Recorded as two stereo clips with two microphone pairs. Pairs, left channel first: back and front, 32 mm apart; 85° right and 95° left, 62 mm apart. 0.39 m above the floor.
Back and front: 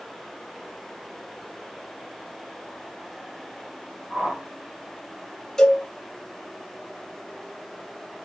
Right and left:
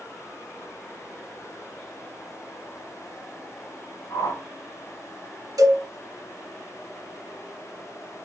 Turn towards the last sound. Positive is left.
turn(degrees=105)